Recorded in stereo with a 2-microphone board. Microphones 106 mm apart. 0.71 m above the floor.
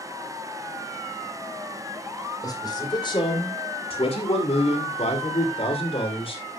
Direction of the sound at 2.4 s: 35° left (ahead or behind).